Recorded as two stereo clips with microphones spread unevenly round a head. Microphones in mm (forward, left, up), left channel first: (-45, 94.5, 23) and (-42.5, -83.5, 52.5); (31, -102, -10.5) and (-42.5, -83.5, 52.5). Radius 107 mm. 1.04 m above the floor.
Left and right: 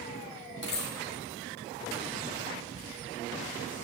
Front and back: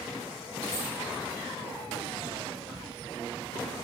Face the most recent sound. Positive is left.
turn(degrees=50)